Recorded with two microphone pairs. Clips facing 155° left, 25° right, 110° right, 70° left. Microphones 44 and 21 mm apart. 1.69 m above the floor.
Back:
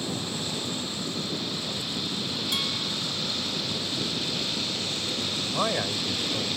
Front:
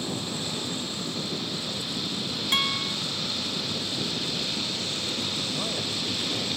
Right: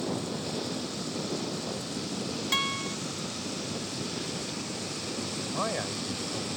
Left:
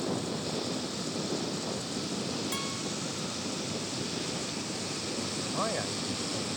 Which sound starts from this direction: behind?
A man speaking, at 5.4 s.